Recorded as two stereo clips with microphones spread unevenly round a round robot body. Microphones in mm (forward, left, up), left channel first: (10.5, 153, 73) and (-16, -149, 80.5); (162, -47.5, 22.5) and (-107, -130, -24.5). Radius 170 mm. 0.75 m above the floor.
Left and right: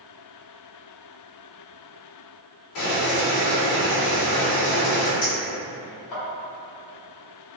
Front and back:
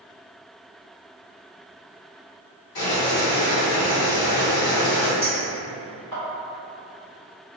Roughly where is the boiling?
Ahead left.